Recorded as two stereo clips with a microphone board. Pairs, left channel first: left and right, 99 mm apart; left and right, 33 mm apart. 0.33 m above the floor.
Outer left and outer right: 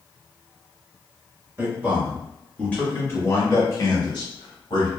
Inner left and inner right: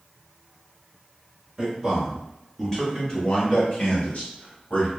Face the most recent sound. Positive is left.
turn(degrees=60)  # may be behind; listen again after turning